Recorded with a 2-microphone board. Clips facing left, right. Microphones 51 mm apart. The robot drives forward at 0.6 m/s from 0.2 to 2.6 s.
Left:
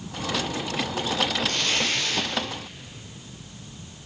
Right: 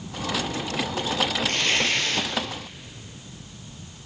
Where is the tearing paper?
45° right (ahead or behind), 4.5 m.